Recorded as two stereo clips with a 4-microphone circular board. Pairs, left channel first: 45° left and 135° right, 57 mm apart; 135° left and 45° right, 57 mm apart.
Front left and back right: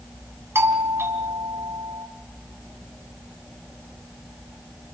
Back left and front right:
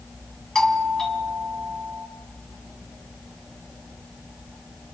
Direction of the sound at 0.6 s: 145° right.